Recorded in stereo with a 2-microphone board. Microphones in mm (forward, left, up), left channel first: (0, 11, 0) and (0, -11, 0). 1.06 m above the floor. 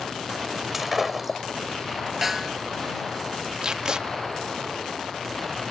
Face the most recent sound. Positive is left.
turn(degrees=-40)  # may be behind; listen again after turning